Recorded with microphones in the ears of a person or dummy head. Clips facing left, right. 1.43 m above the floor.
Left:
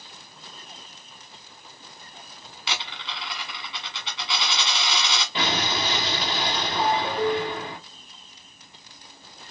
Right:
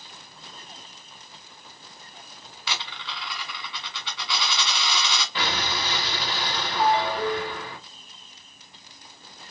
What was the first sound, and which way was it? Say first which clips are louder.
A dropped coin: left 1 dB; 20° left (ahead or behind).